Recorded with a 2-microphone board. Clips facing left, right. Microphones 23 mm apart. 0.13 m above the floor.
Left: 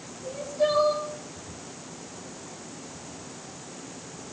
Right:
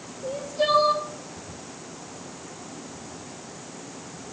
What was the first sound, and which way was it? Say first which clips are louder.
Crying: right 1 dB; 65° right (ahead or behind).